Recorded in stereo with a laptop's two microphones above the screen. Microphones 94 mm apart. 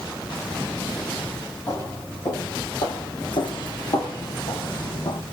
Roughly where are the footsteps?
Left.